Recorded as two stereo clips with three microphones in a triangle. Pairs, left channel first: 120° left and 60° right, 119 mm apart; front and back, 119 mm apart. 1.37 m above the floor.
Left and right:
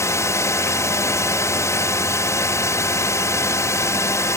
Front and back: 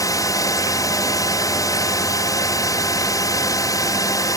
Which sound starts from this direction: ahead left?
A drone, at 0.0 s.